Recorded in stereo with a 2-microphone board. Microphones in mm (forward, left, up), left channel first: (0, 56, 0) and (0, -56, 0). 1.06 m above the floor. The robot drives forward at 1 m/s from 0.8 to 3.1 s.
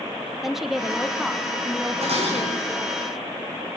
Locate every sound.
0.4 s a woman speaking: 5° right (ahead or behind), 1.8 m; by 3.0 s centre (ahead or behind), 4 m
2.0 s dishes clattering: 65° right (ahead or behind), 7 m; by 2.8 s 60° right (ahead or behind), 7.5 m